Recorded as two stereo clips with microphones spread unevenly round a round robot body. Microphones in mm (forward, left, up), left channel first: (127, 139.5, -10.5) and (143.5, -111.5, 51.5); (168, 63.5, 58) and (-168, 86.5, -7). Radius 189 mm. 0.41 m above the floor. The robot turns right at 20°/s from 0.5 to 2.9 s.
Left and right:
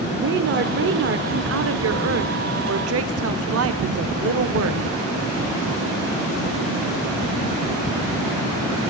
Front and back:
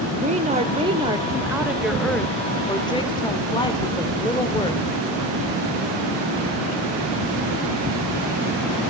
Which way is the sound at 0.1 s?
135° right.